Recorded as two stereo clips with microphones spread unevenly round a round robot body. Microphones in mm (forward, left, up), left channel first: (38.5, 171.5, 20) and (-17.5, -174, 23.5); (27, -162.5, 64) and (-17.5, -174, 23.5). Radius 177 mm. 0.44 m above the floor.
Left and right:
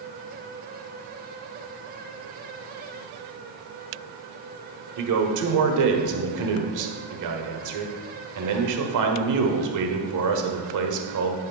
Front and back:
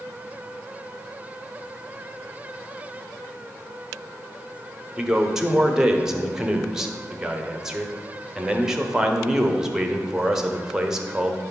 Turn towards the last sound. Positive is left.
turn(degrees=-125)